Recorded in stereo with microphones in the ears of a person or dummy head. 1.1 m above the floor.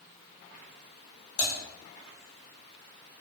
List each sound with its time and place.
1.4 s typing on a keyboard: 55° left (ahead or behind), 0.9 m